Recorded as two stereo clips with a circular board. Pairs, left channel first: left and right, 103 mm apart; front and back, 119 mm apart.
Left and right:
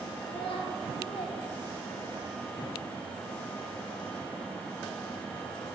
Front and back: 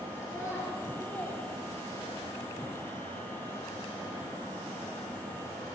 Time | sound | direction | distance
0.2 | a child speaking | 65° left | 6.5 m